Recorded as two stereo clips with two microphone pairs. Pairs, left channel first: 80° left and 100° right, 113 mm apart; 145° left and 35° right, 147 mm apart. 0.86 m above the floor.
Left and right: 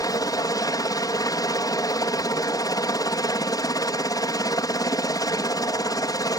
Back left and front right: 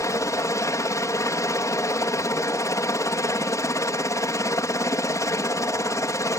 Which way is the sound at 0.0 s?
95° left.